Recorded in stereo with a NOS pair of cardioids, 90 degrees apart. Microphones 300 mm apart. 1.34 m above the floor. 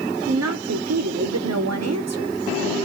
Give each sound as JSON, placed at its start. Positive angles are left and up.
{"t": 0.3, "sound": "a woman speaking", "azimuth_deg": -60, "distance_m": 0.7}